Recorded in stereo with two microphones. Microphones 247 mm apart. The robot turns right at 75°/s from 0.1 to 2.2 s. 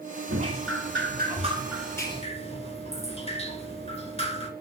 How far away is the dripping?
About 2.0 m.